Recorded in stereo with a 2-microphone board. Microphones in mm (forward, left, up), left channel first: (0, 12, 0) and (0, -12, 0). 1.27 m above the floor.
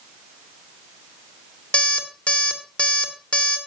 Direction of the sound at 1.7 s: 60° left (ahead or behind).